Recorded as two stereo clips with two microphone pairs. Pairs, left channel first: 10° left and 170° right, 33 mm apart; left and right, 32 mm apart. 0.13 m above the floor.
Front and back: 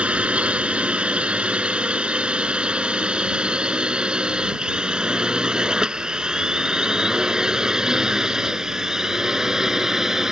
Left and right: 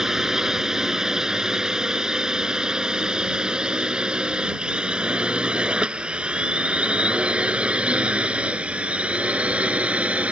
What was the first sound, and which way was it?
A drone, 155° right.